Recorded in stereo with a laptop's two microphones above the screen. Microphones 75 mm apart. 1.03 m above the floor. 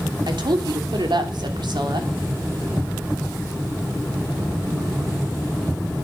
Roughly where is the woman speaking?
Right.